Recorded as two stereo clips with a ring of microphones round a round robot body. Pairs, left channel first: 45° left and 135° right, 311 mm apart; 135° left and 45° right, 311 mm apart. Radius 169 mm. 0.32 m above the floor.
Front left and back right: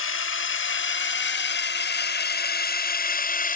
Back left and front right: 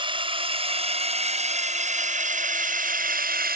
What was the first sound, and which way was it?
A drone, 20° left.